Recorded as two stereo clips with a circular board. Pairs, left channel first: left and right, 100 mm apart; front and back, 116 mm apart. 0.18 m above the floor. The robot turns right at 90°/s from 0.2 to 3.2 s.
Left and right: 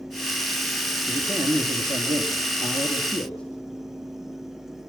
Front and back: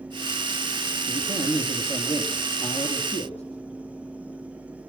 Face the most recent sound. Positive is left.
turn(degrees=10)